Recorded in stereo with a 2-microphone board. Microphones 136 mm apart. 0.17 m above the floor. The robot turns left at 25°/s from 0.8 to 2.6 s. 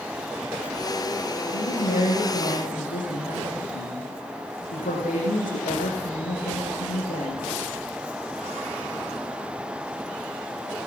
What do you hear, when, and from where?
1.5 s a woman speaking: 55° left (ahead or behind), 8 m; by 7.5 s 80° left, 8 m